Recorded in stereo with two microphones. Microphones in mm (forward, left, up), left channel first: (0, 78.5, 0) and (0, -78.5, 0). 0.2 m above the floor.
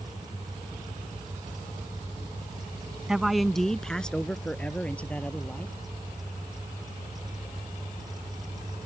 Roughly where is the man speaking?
Centre.